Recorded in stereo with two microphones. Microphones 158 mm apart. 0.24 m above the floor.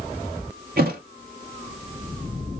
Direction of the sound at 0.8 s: 60° right (ahead or behind).